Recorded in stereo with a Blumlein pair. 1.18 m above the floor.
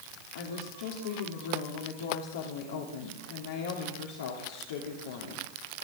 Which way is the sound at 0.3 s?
60° left.